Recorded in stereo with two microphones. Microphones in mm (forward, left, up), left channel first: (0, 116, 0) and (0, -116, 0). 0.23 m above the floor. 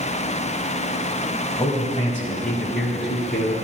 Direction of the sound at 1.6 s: 15° left (ahead or behind).